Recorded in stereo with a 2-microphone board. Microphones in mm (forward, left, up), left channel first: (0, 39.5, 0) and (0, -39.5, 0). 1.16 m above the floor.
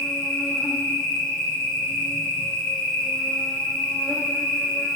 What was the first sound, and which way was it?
An insect, 10° left (ahead or behind).